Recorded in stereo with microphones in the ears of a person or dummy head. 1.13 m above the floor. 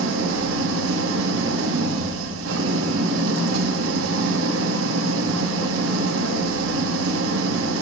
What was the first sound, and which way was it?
An engine running, 80° right.